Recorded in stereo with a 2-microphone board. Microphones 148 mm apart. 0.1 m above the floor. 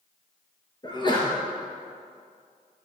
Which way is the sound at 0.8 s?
30° left (ahead or behind).